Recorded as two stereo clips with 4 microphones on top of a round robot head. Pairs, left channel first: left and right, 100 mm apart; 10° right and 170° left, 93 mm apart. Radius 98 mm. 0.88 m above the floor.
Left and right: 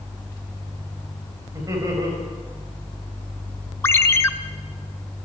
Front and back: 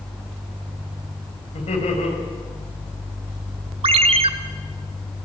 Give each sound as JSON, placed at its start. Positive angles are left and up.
{"t": 1.5, "sound": "laughter", "azimuth_deg": -30, "distance_m": 6.0}
{"t": 3.8, "sound": "a ringtone", "azimuth_deg": 155, "distance_m": 0.8}